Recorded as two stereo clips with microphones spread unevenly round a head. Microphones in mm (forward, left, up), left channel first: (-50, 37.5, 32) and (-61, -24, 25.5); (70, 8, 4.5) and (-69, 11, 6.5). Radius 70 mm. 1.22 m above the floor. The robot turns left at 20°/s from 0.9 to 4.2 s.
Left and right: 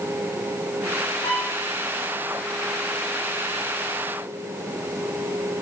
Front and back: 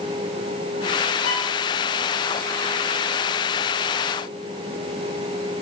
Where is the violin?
30° left, 6 m; by 1.5 s 20° left, 6 m.